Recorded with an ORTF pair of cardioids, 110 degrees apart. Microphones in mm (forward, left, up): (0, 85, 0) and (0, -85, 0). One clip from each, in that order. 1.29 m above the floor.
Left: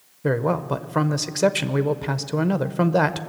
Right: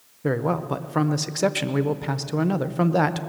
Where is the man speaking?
5° left, 0.6 m.